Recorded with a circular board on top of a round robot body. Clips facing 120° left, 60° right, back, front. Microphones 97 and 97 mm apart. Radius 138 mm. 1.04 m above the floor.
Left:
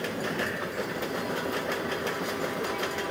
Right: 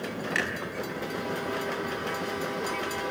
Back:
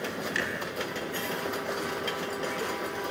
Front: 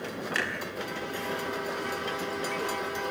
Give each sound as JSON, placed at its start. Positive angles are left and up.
{"t": 0.3, "sound": "a clunk", "azimuth_deg": -45, "distance_m": 3.0}